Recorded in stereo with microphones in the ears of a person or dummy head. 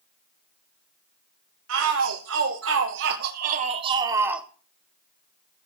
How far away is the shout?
About 3 m.